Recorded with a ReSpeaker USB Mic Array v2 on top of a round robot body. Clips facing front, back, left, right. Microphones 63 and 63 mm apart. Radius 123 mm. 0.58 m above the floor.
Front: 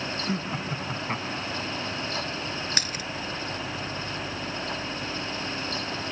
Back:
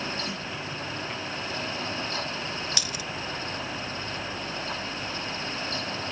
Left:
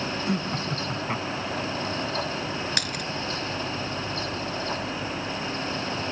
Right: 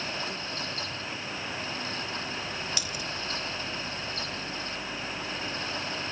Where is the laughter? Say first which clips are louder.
Front 4 dB, left 8 dB; 60° left; by 1.7 s 50° left.